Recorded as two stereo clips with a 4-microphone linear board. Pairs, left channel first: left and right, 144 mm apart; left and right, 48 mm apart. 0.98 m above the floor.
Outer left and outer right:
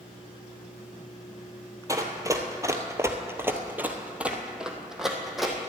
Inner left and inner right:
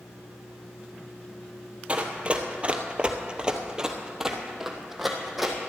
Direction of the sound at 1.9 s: 20° right (ahead or behind).